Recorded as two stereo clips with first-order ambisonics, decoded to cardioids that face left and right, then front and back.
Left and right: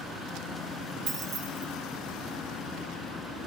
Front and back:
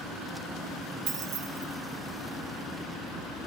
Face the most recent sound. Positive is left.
turn(degrees=-145)